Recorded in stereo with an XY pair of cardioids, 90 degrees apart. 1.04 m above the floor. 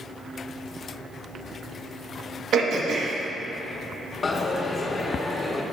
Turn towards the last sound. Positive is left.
turn(degrees=35)